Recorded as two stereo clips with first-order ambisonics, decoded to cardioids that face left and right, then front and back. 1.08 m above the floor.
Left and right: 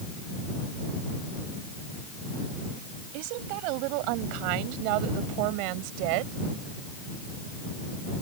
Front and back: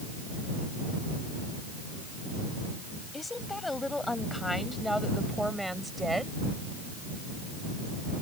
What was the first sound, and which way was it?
A woman speaking, 80° right.